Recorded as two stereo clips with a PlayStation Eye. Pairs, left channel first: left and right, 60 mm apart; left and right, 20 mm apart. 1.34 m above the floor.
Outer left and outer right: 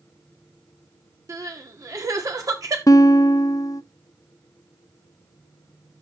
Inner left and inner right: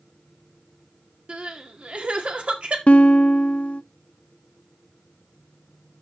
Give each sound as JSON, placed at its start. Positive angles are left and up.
{"t": 1.3, "sound": "crying", "side_deg": -70, "distance_m": 2.0}
{"t": 2.9, "sound": "a guitar", "side_deg": 65, "distance_m": 0.5}